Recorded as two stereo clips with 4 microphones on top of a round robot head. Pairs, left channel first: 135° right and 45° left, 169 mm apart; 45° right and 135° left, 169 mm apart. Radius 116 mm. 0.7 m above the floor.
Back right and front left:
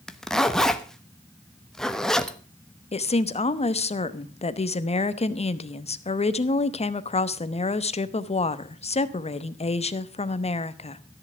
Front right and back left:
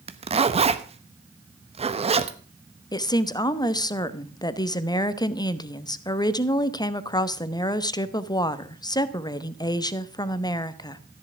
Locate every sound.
0.1 s a zipper: 140° left, 1.3 m
2.9 s a woman speaking: 100° right, 1.1 m